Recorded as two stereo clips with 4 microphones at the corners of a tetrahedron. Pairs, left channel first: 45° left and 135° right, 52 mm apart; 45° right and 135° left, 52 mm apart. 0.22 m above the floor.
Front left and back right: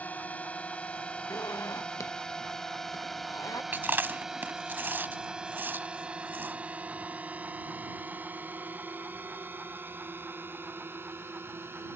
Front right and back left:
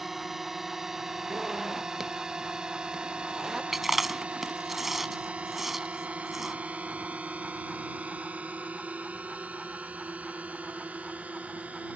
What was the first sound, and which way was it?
A drone, 55° left.